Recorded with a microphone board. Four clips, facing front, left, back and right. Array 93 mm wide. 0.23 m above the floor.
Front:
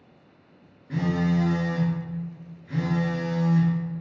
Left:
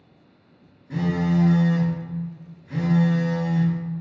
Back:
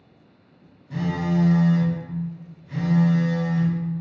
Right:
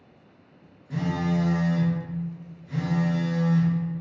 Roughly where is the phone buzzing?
Ahead left.